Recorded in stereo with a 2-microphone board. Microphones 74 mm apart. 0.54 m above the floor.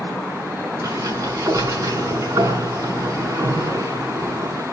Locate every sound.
0.8 s a sliding door: 45° right (ahead or behind), 6 m